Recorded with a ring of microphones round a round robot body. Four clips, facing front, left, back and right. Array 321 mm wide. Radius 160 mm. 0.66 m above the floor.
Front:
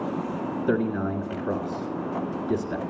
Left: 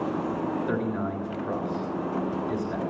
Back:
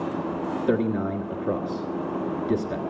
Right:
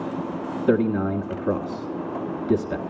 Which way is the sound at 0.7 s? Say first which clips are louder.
Right 7 dB, back 1 dB; 100° right.